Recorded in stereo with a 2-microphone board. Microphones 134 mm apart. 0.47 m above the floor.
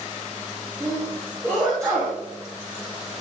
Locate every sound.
0.8 s a sneeze: 25° right (ahead or behind), 3.5 m